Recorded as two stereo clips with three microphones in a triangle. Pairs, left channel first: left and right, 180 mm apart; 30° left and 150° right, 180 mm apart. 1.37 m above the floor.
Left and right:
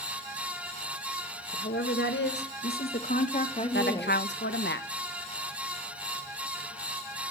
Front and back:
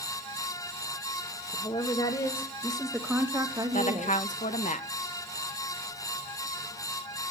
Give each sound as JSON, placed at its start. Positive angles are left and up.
{"t": 1.5, "sound": "a woman speaking", "azimuth_deg": 85, "distance_m": 2.0}
{"t": 3.7, "sound": "a woman speaking", "azimuth_deg": 75, "distance_m": 1.3}